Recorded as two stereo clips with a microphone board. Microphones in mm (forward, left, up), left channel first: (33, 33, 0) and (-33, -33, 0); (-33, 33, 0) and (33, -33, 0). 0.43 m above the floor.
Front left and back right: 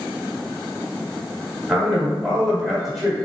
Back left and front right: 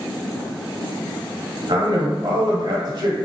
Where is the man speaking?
40° right, 1.2 m.